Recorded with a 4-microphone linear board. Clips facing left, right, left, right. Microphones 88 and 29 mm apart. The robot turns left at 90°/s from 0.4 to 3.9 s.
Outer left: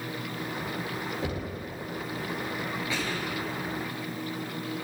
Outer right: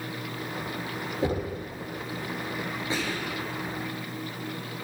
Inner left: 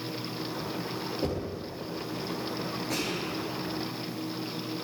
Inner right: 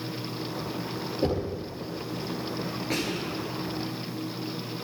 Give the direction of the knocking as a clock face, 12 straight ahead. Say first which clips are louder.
Outer right 5 dB, inner right 8 dB; 1 o'clock.